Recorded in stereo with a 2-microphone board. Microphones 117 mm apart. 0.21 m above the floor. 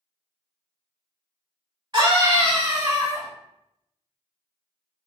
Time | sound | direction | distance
1.9 | a scream | 40° right (ahead or behind) | 1.9 m